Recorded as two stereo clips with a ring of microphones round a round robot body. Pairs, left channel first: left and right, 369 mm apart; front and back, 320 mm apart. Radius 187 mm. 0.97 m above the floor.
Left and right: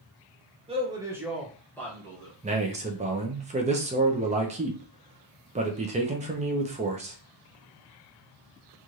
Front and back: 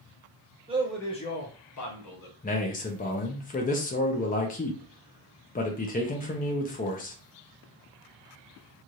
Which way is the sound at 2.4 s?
35° right.